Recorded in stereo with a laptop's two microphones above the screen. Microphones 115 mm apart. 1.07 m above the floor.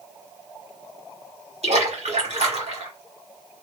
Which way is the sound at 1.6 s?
65° right (ahead or behind).